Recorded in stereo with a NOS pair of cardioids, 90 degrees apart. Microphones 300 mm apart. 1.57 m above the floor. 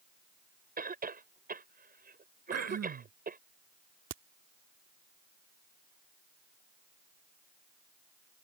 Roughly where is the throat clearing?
Ahead right.